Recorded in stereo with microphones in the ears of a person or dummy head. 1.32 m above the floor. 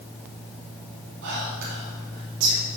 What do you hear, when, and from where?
1.2 s whispering: 65° right (ahead or behind), 1.1 m